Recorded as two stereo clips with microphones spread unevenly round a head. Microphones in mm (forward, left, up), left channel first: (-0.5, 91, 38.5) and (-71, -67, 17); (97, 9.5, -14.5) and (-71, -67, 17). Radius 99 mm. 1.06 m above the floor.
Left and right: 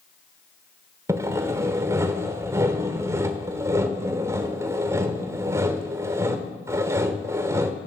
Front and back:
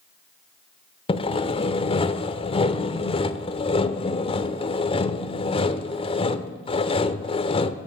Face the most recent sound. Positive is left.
turn(degrees=-35)